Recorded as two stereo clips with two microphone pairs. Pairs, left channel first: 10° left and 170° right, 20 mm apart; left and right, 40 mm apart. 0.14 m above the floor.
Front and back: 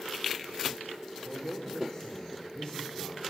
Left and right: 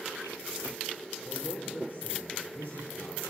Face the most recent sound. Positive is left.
turn(degrees=40)